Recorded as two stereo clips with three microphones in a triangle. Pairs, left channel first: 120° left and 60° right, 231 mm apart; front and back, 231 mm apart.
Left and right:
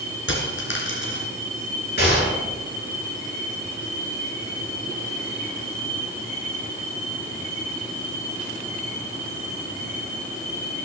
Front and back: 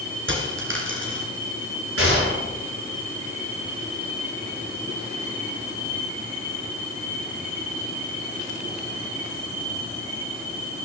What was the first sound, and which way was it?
A dropped coin, 150° left.